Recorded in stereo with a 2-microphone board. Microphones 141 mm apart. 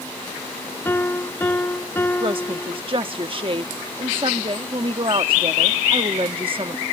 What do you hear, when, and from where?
0.8 s a piano: 15° left (ahead or behind)
2.2 s a woman speaking: 40° right (ahead or behind)